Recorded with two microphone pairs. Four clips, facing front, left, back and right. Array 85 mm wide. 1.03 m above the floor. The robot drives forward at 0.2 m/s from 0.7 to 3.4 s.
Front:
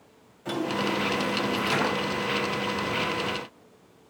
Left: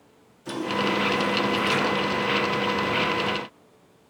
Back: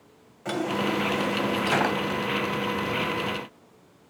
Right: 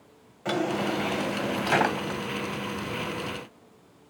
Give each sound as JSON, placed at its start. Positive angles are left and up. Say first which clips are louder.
{"t": 0.5, "sound": "a drawer", "louder": "left 1 dB, back 1 dB", "azimuth_deg": -120, "distance_m": 2.5}